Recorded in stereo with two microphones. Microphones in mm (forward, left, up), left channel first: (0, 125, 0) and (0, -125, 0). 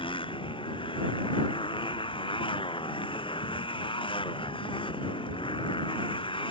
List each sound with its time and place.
0.0 s a motorcycle: 20° left (ahead or behind)